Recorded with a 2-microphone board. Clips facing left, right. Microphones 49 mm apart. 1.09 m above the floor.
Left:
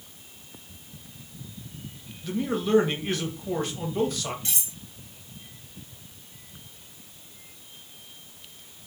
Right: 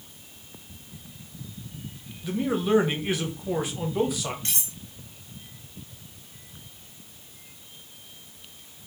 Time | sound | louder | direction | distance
2.2 | a man speaking | right 2 dB | 10° right (ahead or behind) | 0.7 m
4.5 | cutlery clinking | right 1 dB | 55° right (ahead or behind) | 1.6 m